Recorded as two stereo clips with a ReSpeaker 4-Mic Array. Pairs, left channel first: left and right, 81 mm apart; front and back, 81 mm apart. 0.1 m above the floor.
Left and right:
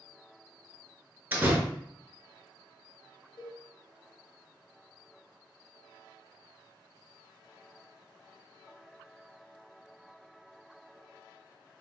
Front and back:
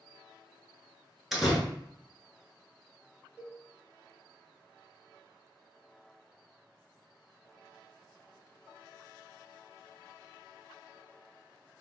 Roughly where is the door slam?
Right.